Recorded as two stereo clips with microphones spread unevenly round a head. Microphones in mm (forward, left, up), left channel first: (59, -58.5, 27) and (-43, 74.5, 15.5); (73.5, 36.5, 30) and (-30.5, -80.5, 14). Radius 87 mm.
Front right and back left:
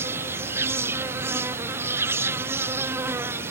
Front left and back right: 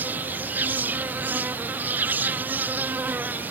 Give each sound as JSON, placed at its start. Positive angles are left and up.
{"t": 0.0, "sound": "an insect", "azimuth_deg": 175}